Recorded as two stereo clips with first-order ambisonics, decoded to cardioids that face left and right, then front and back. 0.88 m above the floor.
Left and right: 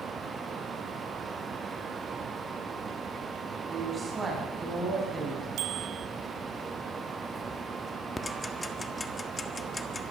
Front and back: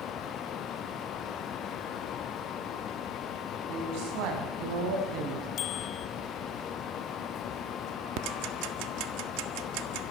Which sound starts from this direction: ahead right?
A bicycle bell, at 5.6 s.